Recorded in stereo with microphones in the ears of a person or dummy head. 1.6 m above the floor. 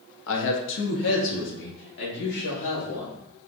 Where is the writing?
No writing in this recording.